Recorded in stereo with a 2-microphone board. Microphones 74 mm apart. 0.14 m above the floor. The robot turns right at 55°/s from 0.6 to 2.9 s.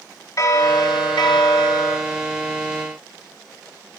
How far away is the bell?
About 1.2 m.